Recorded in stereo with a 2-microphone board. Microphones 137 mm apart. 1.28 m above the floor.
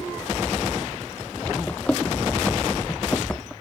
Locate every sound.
1.7 s running footsteps: 10° left (ahead or behind)